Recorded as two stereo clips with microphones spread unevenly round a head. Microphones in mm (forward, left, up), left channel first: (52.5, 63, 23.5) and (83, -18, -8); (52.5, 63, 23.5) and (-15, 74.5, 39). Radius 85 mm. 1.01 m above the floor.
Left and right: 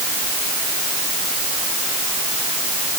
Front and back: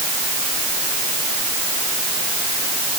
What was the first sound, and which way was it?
Only background noise.